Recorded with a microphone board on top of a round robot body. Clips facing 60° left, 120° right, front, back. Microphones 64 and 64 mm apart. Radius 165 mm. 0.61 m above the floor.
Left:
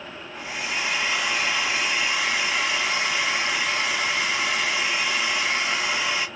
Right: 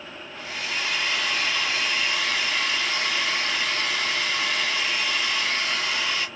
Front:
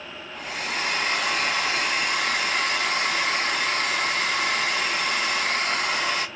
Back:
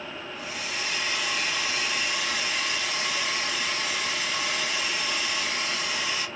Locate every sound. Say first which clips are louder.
0.3 s a hair dryer: left 2 dB, front 6 dB; 5° right, 0.8 m